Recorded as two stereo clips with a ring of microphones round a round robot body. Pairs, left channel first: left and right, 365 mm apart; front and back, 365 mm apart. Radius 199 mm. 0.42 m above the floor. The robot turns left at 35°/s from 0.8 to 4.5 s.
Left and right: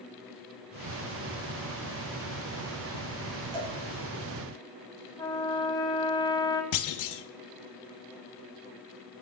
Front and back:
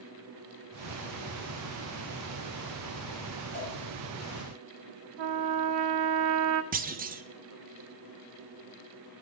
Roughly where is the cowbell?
Right.